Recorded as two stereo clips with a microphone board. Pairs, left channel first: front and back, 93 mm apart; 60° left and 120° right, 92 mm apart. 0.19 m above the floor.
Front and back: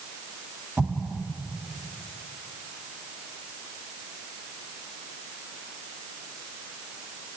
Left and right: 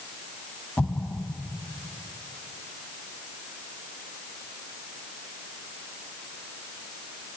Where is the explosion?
115° left, 0.8 m.